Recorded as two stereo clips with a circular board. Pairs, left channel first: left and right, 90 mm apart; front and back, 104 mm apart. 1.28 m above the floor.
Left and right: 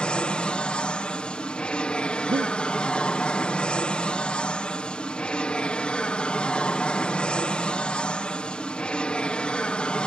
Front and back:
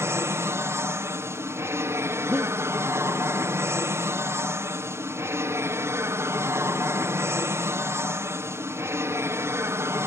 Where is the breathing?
105° right.